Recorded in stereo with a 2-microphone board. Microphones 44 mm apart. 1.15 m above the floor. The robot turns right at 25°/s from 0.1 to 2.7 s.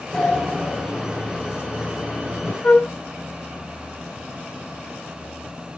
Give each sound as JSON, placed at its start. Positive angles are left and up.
{"t": 0.1, "sound": "a sliding door", "azimuth_deg": 5, "distance_m": 3.5}
{"t": 2.6, "sound": "a flute", "side_deg": 25, "distance_m": 0.5}